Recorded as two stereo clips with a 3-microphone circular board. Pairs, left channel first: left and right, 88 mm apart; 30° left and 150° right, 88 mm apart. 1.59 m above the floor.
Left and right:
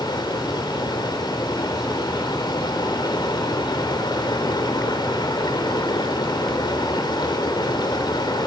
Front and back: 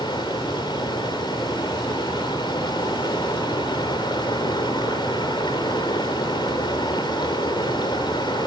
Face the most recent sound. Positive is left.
turn(degrees=55)